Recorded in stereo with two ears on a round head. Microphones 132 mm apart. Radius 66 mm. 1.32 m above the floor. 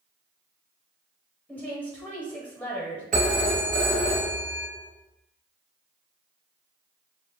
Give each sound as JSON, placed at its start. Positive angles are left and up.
{"t": 1.5, "sound": "a woman speaking", "side_deg": 10, "distance_m": 0.7}
{"t": 3.1, "sound": "a phone ringing", "side_deg": -55, "distance_m": 0.8}